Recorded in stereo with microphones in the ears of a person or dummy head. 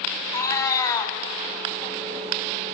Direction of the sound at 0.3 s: 15° left (ahead or behind).